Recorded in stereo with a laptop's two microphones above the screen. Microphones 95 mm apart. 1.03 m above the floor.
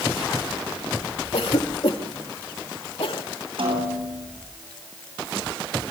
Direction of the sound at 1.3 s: 75° left (ahead or behind).